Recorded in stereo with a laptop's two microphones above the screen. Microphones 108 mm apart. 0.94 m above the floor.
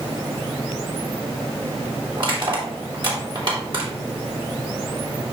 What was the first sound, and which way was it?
Crushing, 50° right (ahead or behind).